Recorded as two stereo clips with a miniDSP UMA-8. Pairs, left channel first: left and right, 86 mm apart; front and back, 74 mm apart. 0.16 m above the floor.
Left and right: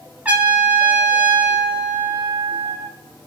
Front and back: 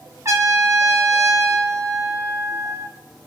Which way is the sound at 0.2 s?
160° right.